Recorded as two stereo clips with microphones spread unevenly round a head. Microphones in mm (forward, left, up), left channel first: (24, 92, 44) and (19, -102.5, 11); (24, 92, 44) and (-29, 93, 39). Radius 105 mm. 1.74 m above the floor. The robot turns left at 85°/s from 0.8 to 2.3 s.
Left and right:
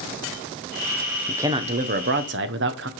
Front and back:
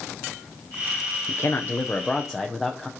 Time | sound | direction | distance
1.3 | a man speaking | straight ahead | 0.7 m